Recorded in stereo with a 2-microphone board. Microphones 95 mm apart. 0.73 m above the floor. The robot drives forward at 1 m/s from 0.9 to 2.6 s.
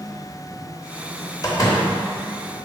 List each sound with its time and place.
1.4 s a door slam: 40° left (ahead or behind), 2 m; by 1.9 s 35° left (ahead or behind), 2.5 m